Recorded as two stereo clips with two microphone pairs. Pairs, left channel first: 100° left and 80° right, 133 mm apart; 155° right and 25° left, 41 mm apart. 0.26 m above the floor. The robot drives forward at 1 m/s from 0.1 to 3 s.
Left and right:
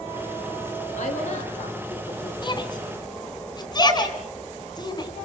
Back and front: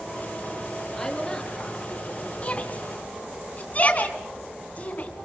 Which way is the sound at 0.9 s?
125° left.